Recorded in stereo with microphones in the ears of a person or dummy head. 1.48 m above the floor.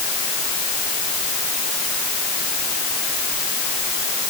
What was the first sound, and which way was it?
Only background noise.